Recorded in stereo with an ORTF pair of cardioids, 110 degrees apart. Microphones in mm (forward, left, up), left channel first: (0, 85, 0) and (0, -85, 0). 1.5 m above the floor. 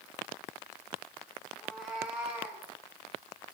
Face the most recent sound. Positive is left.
turn(degrees=-15)